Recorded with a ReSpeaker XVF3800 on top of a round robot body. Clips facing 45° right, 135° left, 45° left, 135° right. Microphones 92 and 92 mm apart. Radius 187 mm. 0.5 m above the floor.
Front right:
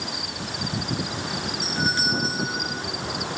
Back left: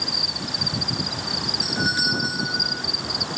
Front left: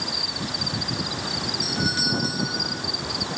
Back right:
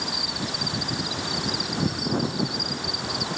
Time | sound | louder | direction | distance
0.0 | an insect | back left 1 dB, back right 1 dB | 160° left | ?
1.6 | a doorbell | back left 1 dB, front left 3 dB | 55° left | ?